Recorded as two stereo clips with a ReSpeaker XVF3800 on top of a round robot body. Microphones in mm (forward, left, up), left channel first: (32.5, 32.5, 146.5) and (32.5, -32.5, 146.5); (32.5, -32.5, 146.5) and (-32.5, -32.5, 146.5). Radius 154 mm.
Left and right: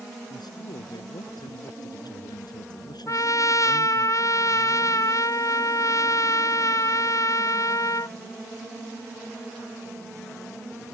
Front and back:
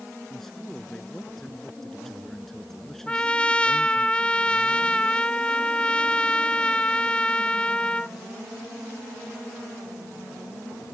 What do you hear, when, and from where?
0.3 s a man speaking: 85° left
3.1 s a trumpet: 70° left